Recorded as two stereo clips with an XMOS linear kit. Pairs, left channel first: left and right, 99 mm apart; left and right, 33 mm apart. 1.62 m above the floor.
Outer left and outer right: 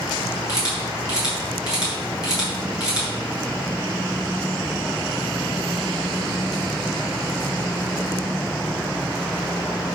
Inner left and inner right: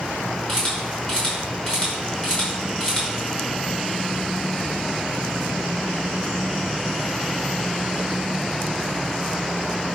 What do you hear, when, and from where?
0.5 s a camera shutter: 40° left (ahead or behind), 6 m